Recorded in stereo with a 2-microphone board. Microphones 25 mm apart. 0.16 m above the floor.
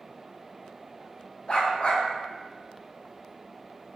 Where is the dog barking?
50° left (ahead or behind), 2 m.